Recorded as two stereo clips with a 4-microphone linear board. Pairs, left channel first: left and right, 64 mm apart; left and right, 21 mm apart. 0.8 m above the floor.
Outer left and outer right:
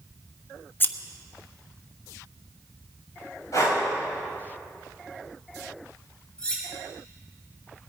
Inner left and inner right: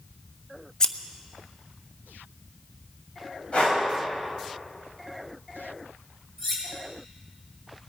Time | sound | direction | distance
0.8 | scissors | 30° left (ahead or behind) | 0.6 m
3.5 | breathing | 55° left (ahead or behind) | 3.5 m
6.4 | cutlery clinking | 15° left (ahead or behind) | 3.5 m